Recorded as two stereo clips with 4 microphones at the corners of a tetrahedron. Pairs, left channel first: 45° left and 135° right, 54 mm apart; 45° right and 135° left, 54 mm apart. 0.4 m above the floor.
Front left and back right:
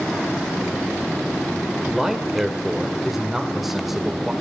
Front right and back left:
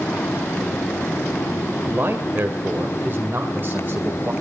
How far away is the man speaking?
About 1.8 m.